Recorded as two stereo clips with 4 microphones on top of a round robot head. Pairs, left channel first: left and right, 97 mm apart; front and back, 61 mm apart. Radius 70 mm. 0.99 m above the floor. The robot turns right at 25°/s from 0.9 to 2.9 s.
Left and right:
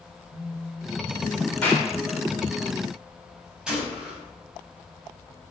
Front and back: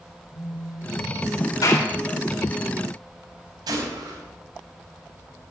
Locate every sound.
0.3 s a phone buzzing: 5° left, 4.5 m; by 1.5 s 25° left, 4.5 m
1.6 s a clap: 10° left, 3.5 m; by 1.9 s 20° left, 3.5 m
3.7 s a gunshot: 170° right, 5 m